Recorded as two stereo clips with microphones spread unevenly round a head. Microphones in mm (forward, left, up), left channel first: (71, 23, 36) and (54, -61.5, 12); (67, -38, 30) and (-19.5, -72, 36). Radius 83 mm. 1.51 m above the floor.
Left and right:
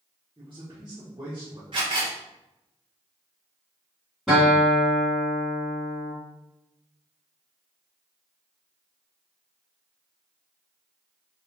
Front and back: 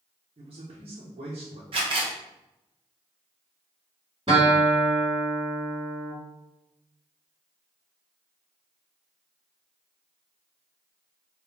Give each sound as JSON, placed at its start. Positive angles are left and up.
{"t": 0.4, "sound": "a man speaking", "azimuth_deg": -175, "distance_m": 1.1}
{"t": 1.7, "sound": "a camera shutter", "azimuth_deg": -165, "distance_m": 0.8}
{"t": 4.3, "sound": "a guitar", "azimuth_deg": 155, "distance_m": 2.0}